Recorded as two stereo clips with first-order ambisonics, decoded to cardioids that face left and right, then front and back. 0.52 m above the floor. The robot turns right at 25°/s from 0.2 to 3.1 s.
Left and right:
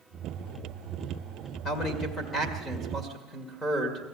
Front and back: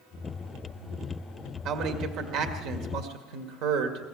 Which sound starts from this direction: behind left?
A man speaking, at 1.6 s.